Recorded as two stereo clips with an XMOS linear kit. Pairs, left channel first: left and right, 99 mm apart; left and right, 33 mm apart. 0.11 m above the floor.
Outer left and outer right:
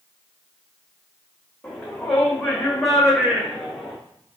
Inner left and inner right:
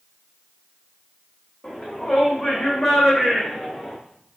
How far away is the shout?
About 6 m.